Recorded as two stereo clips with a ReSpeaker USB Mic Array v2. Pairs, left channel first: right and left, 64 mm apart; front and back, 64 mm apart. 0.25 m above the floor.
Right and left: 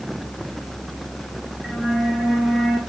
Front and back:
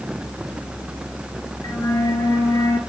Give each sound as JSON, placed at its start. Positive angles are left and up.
{"t": 1.6, "sound": "a flute", "azimuth_deg": 5, "distance_m": 1.5}